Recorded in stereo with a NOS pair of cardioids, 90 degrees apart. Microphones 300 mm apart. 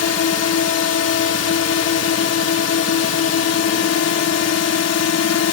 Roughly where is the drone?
Ahead left.